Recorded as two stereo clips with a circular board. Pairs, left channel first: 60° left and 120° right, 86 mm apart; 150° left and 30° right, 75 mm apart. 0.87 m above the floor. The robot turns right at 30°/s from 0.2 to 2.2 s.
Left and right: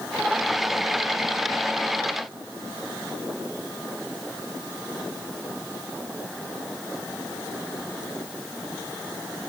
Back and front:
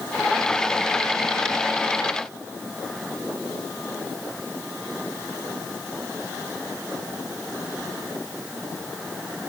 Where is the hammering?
No hammering in this recording.